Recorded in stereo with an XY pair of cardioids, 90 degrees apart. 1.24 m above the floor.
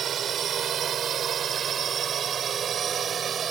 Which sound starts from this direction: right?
A drone, at 0.0 s.